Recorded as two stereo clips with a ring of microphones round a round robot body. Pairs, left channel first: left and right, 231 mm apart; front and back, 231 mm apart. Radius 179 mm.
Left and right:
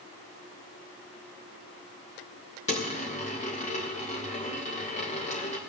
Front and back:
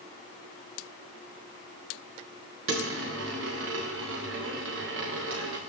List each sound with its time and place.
2.7 s a dropped coin: 150° left, 2.5 m